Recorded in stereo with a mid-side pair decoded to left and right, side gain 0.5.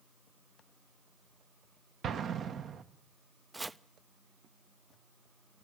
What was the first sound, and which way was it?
An explosion, 55° right.